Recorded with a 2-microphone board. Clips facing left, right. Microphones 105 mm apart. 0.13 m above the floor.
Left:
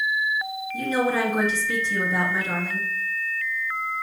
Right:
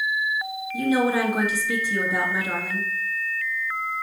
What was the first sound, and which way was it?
A woman speaking, 10° right (ahead or behind).